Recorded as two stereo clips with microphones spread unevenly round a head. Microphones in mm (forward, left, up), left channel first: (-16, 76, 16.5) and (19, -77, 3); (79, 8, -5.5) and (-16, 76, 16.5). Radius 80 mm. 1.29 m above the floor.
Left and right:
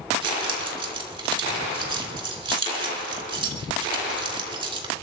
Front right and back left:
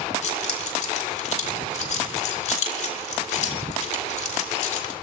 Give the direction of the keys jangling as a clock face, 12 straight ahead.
1 o'clock.